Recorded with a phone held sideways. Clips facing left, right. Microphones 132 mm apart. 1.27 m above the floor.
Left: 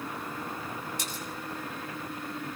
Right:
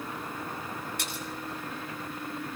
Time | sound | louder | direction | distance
1.0 | a splash | right 1 dB | 70° right (ahead or behind) | 9.5 m